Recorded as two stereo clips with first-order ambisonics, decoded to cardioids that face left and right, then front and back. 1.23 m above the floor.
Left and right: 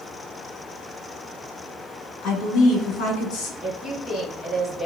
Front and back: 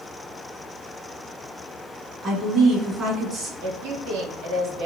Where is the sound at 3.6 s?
165° left, 1.5 m.